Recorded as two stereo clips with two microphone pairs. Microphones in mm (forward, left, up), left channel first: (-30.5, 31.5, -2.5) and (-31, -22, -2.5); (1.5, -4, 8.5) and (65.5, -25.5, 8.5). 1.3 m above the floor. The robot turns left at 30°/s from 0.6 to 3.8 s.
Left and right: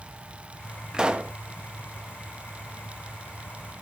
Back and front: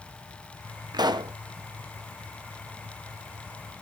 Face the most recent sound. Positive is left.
turn(degrees=-100)